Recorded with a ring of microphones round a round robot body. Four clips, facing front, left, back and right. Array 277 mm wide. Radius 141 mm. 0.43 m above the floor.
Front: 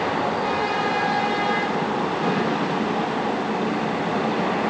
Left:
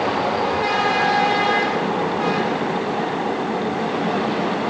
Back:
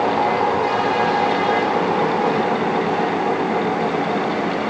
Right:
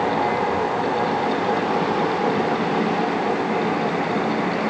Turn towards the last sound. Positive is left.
No sound to turn to.